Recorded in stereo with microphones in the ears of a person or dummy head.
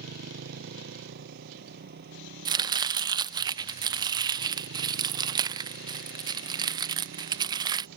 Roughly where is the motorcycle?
Right.